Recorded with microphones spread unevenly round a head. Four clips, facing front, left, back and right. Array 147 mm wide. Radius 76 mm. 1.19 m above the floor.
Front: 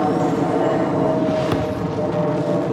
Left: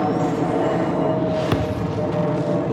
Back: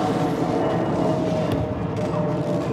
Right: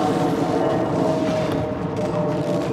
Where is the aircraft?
15° right; by 2.7 s 5° left.